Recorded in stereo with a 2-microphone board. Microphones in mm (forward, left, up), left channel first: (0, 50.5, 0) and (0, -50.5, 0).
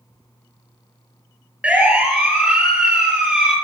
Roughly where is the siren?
Centre.